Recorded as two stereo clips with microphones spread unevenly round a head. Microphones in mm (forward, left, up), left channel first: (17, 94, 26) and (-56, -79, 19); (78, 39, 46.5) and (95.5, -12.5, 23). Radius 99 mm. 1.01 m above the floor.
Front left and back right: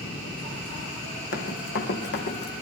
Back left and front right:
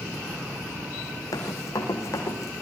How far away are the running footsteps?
About 3.5 m.